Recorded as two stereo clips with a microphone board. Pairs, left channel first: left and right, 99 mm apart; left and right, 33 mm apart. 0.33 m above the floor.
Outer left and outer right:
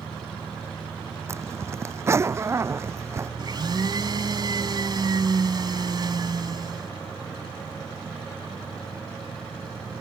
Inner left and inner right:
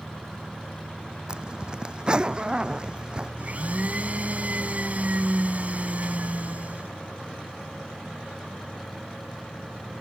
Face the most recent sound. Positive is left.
turn(degrees=-45)  # may be behind; listen again after turning